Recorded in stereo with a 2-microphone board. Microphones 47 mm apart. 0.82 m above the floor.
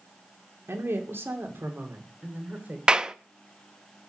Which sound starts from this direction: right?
A woman speaking, at 0.7 s.